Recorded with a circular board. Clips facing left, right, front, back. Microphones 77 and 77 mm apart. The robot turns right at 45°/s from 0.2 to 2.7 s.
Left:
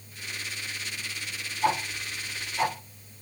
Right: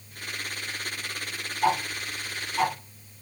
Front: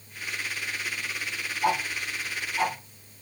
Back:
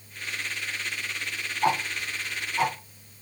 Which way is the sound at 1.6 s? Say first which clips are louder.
Right 2 dB, back 1 dB; 145° right.